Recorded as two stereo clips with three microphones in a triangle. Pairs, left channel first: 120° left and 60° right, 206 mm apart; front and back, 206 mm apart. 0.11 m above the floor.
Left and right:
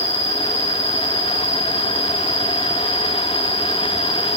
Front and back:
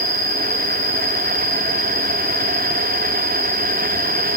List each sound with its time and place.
0.0 s an insect: 65° left, 2.5 m